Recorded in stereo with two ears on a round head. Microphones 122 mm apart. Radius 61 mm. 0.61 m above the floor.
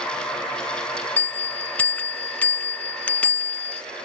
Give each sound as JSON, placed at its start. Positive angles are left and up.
{"t": 1.2, "sound": "a bell", "side_deg": 15}